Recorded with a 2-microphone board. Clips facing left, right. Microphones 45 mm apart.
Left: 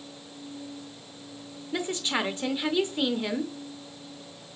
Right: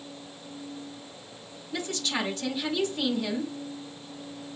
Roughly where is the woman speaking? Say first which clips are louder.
Left 2 dB; left.